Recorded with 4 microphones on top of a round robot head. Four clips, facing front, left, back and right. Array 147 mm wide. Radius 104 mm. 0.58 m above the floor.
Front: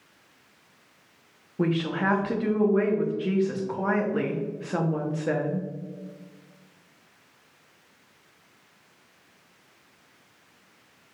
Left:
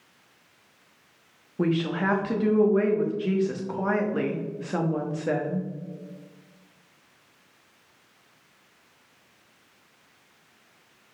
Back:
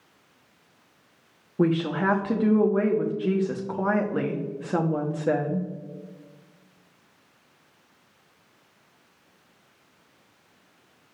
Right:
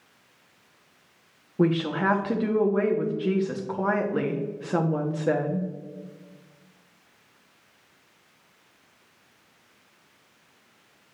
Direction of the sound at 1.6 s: 140° right.